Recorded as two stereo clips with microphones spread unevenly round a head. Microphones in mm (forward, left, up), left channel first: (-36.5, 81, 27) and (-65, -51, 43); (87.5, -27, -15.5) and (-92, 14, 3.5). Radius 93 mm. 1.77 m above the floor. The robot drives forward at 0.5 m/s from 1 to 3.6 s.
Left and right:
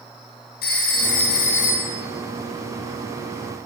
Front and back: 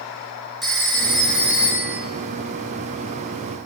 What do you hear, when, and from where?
0.6 s a phone ringing: 80° left, 3 m; by 2.0 s 90° left, 3 m